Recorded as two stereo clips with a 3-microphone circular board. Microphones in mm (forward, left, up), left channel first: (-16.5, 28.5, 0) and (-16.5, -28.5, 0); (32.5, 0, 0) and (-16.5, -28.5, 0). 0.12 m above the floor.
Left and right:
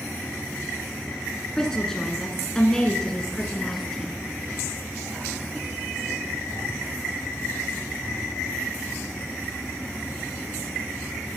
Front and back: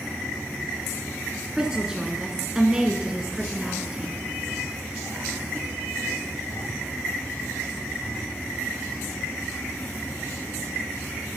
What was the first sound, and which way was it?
A woman speaking, 155° left.